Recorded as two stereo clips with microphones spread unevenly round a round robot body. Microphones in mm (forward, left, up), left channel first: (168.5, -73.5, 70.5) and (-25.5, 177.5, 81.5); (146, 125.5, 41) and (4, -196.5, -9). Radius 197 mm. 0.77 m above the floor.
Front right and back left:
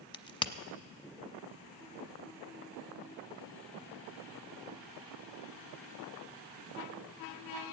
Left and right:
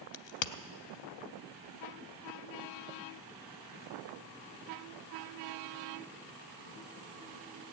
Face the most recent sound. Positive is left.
turn(degrees=25)